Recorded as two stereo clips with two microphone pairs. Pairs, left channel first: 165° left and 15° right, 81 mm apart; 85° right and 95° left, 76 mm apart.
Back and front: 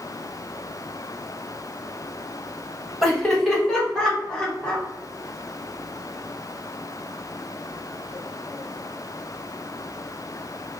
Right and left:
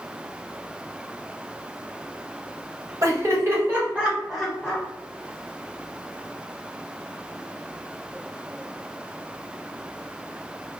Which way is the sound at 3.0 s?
80° left.